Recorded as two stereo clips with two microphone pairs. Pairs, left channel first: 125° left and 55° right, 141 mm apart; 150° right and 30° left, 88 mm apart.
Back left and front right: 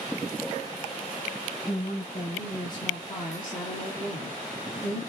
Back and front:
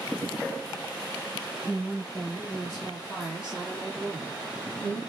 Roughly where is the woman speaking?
Behind.